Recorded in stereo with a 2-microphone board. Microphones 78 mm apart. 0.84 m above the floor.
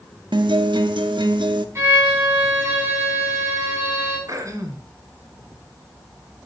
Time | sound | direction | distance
0.3 | a guitar | 80° right | 0.7 m
1.8 | a violin | 35° right (ahead or behind) | 3.5 m
4.3 | throat clearing | 45° right (ahead or behind) | 1.9 m